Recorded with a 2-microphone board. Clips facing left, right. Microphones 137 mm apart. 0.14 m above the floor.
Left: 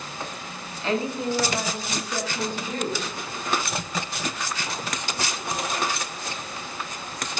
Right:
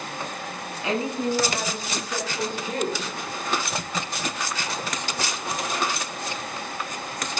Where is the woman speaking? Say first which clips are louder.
Even; 15° right (ahead or behind), 1.2 m; by 3.1 s 65° right (ahead or behind), 2.5 m.